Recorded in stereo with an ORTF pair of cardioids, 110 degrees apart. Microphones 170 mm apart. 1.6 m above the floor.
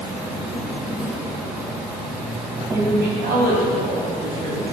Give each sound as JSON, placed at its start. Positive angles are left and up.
{"t": 0.0, "sound": "an insect", "azimuth_deg": -5, "distance_m": 1.9}
{"t": 2.7, "sound": "a woman speaking", "azimuth_deg": -65, "distance_m": 3.5}